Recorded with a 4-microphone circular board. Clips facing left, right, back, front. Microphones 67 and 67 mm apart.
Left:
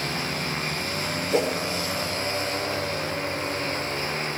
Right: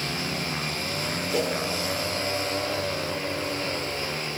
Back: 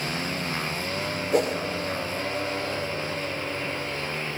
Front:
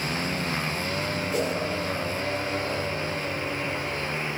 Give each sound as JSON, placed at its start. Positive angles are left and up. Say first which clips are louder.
{"t": 1.3, "sound": "a whoosh", "louder": "left 3 dB, back 6 dB", "azimuth_deg": 150, "distance_m": 1.3}